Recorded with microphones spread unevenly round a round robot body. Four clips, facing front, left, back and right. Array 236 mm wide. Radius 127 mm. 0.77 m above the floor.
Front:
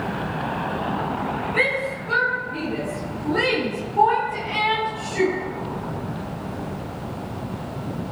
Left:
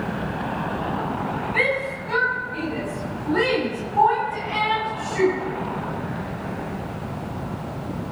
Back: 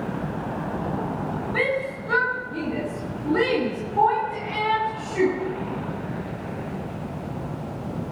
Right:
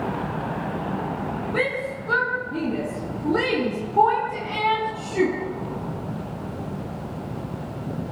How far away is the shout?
About 8.5 m.